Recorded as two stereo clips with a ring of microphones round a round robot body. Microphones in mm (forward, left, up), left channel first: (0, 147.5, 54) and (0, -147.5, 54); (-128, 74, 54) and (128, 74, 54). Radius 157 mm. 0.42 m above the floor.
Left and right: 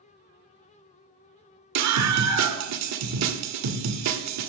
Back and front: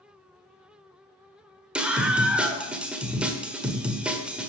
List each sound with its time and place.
1.8 s a scream: 85° right, 1.2 m